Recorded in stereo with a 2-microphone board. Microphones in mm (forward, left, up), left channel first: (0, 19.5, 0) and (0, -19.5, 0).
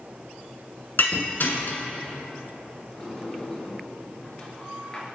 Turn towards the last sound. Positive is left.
turn(degrees=25)  # may be behind; listen again after turning